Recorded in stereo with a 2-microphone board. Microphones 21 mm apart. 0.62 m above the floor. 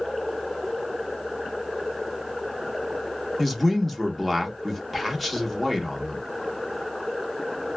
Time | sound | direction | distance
3.4 | a man speaking | 5° left (ahead or behind) | 0.8 m